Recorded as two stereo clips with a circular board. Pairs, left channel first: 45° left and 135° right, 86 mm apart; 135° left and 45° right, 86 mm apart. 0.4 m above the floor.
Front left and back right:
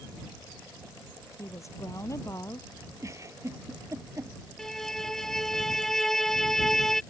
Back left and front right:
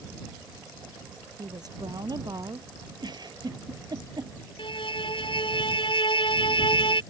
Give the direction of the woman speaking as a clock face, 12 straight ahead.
12 o'clock.